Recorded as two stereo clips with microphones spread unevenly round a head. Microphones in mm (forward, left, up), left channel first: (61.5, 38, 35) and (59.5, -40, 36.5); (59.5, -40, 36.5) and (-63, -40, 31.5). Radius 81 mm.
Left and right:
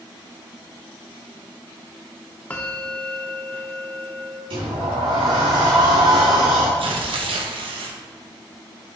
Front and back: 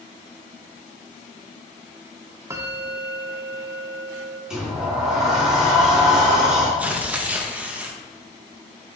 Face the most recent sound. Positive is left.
turn(degrees=-100)